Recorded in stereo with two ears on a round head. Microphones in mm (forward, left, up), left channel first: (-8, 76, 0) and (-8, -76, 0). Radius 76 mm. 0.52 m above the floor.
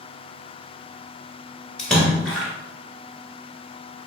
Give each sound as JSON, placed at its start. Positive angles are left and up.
{"t": 1.8, "sound": "a splash", "side_deg": 5, "distance_m": 1.2}